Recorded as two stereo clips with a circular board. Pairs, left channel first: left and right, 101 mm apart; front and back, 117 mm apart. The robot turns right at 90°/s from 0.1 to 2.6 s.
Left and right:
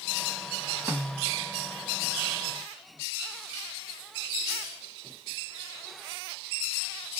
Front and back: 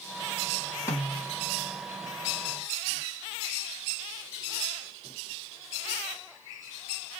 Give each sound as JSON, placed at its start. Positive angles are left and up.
{"t": 0.9, "sound": "a snare drum", "azimuth_deg": -45, "distance_m": 1.2}